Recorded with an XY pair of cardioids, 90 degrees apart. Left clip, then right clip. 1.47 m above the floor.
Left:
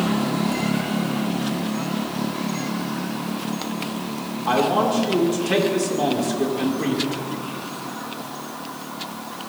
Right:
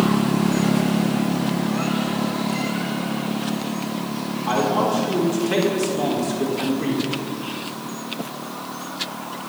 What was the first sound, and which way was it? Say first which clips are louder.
A man speaking: left 1 dB; 25° left.